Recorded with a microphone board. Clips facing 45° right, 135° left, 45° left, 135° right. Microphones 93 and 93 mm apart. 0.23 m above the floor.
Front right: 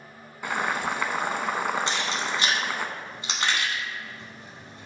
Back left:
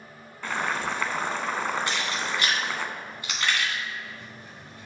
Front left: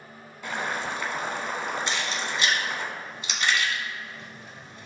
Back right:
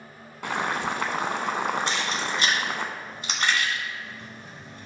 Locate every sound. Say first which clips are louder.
0.4 s boiling: front right 1 dB, back right 3 dB; 120° right, 0.6 m
1.9 s keys jangling: front right 1 dB, back right 2 dB; 105° right, 1.2 m